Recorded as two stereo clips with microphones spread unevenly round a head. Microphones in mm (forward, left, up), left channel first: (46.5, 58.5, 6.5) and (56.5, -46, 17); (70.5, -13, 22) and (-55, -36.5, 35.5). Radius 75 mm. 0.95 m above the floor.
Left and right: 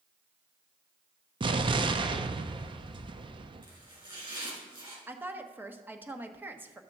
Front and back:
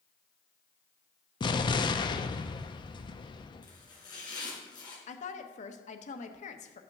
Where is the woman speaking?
10° right, 1.1 m.